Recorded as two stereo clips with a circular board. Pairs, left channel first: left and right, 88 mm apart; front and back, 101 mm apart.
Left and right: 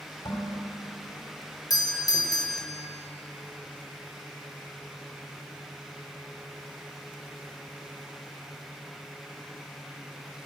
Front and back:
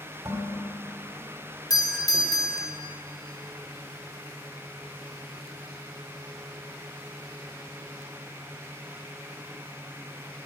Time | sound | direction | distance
0.2 | dishes clattering | 125° left | 2.5 m
1.7 | a doorbell | 50° left | 1.1 m